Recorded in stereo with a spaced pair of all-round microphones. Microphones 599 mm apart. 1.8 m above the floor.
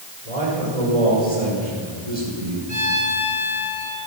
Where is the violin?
60° right (ahead or behind), 3 m.